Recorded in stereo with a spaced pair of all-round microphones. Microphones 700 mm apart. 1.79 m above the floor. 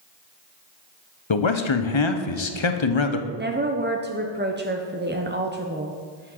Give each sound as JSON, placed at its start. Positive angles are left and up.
{"t": 1.3, "sound": "a man speaking", "side_deg": 40, "distance_m": 0.8}
{"t": 3.4, "sound": "a woman speaking", "side_deg": -15, "distance_m": 0.6}